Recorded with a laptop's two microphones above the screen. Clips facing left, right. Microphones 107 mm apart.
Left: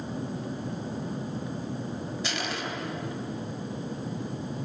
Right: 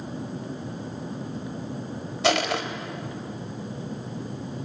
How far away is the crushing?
About 2.5 m.